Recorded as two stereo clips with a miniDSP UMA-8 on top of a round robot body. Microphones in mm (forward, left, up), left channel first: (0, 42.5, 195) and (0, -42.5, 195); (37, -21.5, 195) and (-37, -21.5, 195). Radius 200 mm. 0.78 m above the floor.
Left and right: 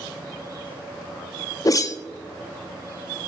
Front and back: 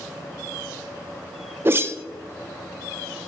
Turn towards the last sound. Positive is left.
turn(degrees=130)